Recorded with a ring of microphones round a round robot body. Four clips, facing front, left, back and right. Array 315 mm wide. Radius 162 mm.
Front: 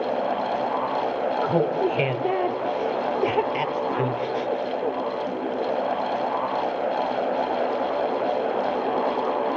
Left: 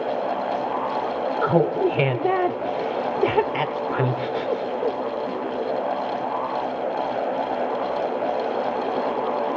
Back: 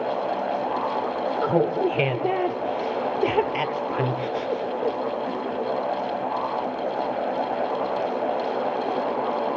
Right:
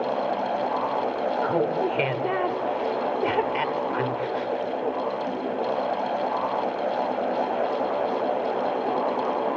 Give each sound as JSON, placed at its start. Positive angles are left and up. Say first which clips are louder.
{"t": 1.4, "sound": "laughter", "louder": "left 6 dB, back 2 dB", "azimuth_deg": 100, "distance_m": 0.9}